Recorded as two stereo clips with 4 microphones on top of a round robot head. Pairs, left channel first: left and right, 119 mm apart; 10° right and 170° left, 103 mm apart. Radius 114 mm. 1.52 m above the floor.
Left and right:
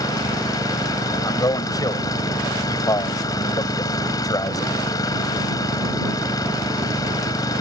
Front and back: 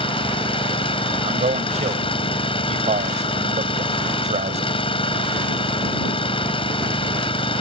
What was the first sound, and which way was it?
An engine running, 25° left.